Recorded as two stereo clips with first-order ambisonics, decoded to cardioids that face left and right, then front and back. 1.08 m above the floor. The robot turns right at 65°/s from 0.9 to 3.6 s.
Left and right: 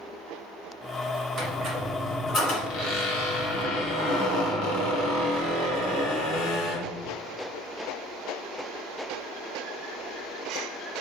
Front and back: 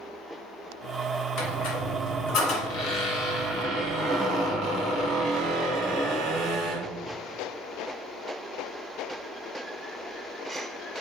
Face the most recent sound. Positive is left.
turn(degrees=115)